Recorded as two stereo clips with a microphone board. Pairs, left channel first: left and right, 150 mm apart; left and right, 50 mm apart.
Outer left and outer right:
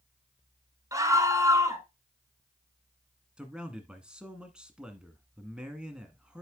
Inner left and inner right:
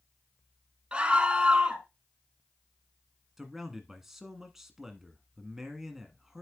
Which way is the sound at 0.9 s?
20° right (ahead or behind).